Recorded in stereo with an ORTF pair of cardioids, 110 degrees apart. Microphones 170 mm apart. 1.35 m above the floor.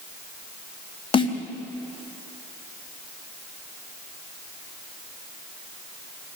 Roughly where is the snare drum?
Ahead left.